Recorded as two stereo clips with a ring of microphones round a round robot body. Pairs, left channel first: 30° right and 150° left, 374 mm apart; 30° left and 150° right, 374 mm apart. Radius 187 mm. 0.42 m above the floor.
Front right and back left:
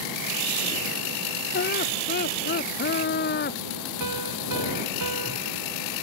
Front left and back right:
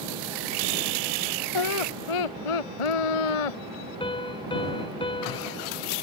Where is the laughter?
35° left.